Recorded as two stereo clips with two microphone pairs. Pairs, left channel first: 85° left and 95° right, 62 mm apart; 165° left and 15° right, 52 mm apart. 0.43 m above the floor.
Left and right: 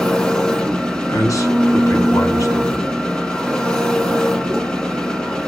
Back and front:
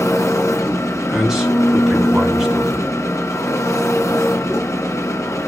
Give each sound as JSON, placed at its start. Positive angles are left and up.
{"t": 0.0, "sound": "an engine running", "azimuth_deg": 160, "distance_m": 2.0}
{"t": 1.1, "sound": "a man speaking", "azimuth_deg": 70, "distance_m": 3.0}